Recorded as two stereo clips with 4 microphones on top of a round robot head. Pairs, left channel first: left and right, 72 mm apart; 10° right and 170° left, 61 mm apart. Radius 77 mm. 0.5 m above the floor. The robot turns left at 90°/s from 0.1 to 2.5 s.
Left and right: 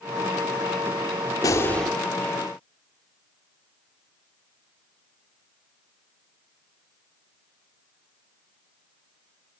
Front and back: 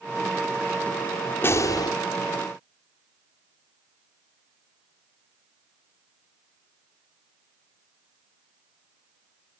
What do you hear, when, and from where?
1.4 s a gunshot: 40° left, 2.5 m; by 1.9 s straight ahead, 2.5 m